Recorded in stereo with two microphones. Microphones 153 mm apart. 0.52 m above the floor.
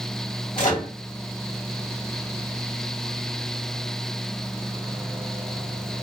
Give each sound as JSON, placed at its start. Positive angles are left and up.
{"t": 0.6, "sound": "a microwave", "side_deg": 65, "distance_m": 1.2}